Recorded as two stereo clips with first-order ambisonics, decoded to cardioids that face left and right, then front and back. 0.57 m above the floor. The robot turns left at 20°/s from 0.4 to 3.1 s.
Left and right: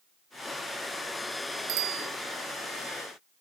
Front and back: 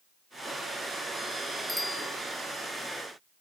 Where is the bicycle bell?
85° right; by 2.1 s 90° right.